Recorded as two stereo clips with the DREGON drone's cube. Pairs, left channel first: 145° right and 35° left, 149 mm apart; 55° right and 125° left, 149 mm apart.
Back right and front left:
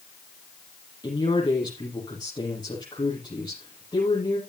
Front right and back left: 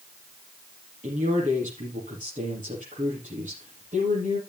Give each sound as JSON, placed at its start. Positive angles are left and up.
{"t": 1.0, "sound": "a man speaking", "azimuth_deg": 155, "distance_m": 6.5}